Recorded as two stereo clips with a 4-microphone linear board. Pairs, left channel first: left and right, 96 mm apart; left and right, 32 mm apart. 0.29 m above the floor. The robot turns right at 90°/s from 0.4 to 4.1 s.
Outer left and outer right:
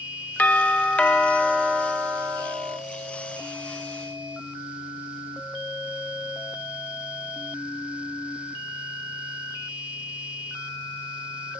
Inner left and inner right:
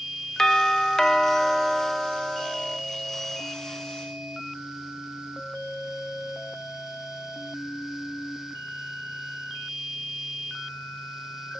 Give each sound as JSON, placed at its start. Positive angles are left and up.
{"t": 0.4, "sound": "a doorbell", "side_deg": 20, "distance_m": 1.3}